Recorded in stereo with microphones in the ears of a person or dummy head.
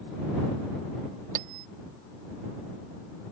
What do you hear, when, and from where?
1.4 s a bell: 45° right (ahead or behind)